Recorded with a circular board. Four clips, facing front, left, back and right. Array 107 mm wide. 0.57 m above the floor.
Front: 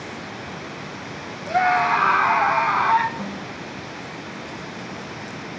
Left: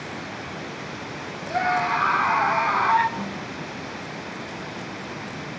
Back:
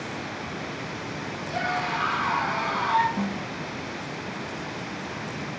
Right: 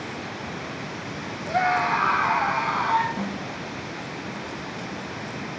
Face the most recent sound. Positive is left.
turn(degrees=-145)